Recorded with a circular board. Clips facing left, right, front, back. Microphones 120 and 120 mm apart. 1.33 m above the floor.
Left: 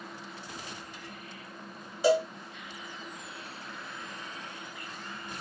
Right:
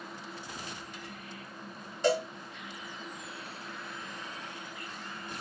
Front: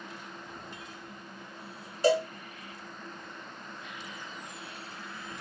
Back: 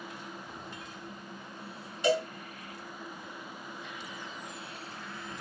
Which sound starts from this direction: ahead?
A cowbell, at 2.0 s.